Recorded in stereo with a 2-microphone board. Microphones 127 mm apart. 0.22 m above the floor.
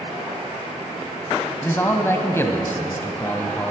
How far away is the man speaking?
About 1.0 m.